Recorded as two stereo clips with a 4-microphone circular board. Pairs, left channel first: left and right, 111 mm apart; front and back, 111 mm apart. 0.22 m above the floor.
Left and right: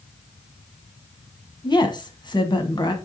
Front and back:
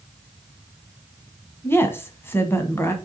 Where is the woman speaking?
60° left, 1.4 m.